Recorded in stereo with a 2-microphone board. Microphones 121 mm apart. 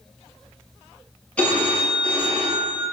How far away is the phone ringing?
About 1.3 m.